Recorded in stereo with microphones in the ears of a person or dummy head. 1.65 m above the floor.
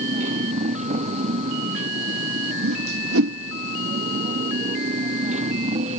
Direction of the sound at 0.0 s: 40° right (ahead or behind).